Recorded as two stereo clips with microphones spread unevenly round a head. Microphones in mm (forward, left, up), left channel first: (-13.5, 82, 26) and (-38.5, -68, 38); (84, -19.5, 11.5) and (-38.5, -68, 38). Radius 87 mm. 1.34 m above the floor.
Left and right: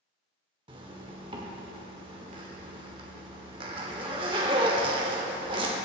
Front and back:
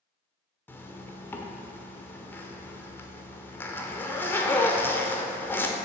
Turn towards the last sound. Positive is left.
turn(degrees=-60)